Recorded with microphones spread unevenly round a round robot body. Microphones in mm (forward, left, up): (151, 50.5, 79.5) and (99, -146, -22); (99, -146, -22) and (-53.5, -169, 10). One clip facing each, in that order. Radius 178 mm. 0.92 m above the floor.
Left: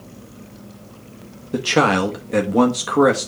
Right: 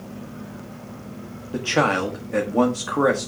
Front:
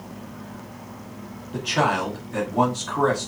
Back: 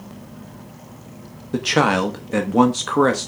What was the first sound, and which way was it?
A man speaking, 145° left.